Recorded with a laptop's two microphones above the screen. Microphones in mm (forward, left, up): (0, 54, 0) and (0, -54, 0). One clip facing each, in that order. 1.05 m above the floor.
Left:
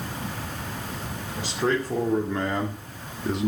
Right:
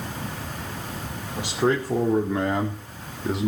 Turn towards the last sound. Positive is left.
turn(degrees=0)  # may be behind; listen again after turning